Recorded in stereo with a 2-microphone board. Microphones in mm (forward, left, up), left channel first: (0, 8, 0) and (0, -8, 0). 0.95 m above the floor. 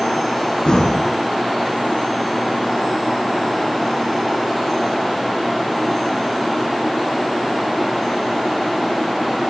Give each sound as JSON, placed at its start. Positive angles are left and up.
{"t": 0.7, "sound": "breathing", "side_deg": 80, "distance_m": 6.5}